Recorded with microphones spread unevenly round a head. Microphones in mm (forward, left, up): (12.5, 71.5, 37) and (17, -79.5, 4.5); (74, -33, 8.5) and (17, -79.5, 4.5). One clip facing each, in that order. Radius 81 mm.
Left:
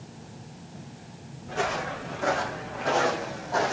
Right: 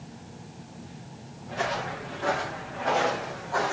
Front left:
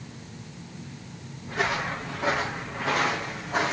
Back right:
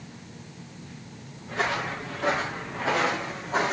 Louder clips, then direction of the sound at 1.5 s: Left 1 dB, even; 125° left.